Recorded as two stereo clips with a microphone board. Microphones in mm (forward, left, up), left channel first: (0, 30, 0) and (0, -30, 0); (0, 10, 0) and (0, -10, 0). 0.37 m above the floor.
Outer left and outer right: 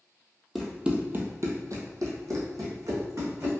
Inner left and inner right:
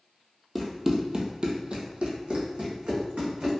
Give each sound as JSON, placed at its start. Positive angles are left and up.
{"t": 0.6, "sound": "running footsteps", "side_deg": -5, "distance_m": 0.8}